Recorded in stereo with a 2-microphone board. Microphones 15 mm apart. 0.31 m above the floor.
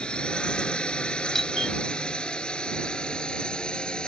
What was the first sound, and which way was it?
A drone, 75° left (ahead or behind).